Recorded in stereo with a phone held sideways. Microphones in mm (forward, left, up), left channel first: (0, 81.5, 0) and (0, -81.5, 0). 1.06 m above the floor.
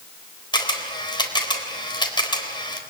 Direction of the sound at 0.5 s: 30° left (ahead or behind).